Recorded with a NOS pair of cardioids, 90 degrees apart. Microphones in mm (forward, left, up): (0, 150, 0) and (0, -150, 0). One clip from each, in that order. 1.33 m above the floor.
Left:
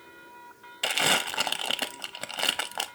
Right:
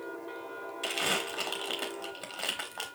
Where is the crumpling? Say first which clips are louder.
Left 6 dB; 35° left, 0.7 m.